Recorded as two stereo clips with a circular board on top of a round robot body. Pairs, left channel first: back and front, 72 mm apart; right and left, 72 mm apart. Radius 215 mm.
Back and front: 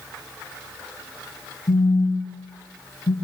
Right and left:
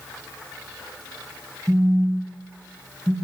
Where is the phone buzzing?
160° left, 3 m.